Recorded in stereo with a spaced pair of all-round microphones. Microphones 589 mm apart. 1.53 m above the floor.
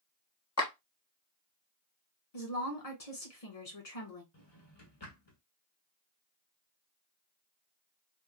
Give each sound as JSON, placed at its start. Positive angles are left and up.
{"t": 0.6, "sound": "a clap", "side_deg": 25, "distance_m": 1.0}
{"t": 2.3, "sound": "a woman speaking", "side_deg": 75, "distance_m": 1.5}
{"t": 4.3, "sound": "a drawer", "side_deg": 45, "distance_m": 1.6}